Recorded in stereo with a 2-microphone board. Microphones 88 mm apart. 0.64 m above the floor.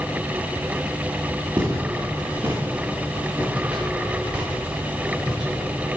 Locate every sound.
1.6 s footsteps: 30° right (ahead or behind), 3 m; by 5.6 s 5° right (ahead or behind), 4.5 m